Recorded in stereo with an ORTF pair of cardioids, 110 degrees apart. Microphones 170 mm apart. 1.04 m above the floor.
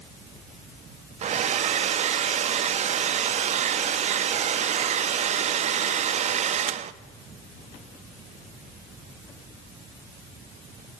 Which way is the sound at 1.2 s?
45° right.